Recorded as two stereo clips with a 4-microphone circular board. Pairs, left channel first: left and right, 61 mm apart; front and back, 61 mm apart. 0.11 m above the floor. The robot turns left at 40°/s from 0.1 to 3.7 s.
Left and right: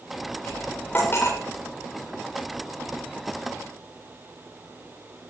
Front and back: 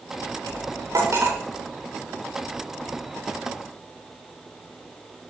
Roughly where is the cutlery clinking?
Behind.